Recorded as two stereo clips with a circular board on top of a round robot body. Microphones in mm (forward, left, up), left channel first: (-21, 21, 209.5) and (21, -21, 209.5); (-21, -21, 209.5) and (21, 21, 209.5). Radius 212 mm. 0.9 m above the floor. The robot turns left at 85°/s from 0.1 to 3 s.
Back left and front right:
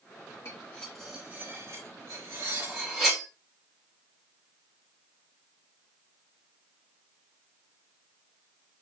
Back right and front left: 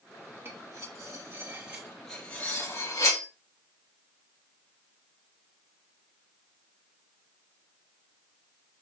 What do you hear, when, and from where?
0.5 s cutlery clinking: 95° left, 2.5 m; by 3.2 s 120° right, 2.5 m